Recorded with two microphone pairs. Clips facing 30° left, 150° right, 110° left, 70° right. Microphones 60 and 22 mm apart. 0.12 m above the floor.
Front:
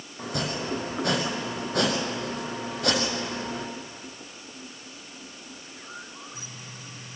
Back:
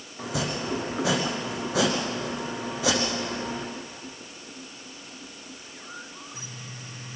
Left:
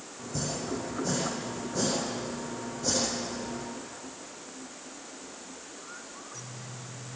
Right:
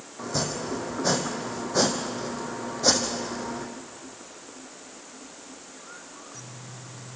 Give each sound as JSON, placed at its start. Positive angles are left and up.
{"t": 0.2, "sound": "chopping", "azimuth_deg": -65, "distance_m": 3.5}